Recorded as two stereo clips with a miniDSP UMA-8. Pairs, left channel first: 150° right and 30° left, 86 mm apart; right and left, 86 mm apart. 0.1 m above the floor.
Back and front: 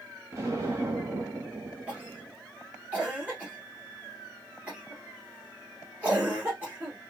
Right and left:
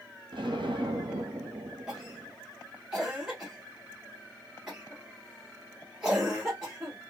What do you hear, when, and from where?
0.3 s an explosion: 80° left, 0.8 m
1.9 s a cough: 25° left, 1.2 m